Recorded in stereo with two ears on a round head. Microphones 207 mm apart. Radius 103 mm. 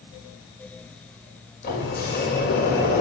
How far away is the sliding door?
About 5 m.